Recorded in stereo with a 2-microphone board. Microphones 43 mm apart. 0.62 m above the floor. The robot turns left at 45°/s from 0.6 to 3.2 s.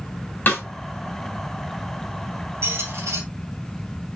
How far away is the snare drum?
About 3 m.